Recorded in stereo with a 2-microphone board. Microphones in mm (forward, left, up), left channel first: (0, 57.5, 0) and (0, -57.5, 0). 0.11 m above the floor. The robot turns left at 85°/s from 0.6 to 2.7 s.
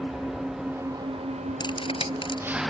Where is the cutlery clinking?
40° left (ahead or behind).